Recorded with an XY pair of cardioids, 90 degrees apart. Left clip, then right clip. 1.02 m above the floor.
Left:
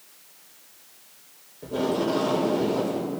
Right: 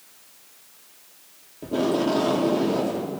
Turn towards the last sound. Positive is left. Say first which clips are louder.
# right 2 dB
turn(degrees=-60)